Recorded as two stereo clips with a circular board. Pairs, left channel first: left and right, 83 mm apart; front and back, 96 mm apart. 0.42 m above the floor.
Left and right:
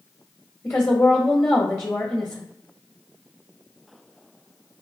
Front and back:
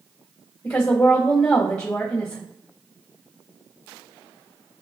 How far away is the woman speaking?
About 1.2 m.